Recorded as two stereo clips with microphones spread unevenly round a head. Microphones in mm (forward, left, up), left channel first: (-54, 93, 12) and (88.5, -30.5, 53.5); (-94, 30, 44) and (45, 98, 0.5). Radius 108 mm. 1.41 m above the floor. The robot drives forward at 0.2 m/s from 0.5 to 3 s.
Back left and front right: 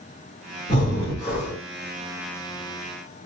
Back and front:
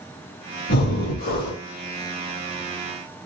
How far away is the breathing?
About 2.5 m.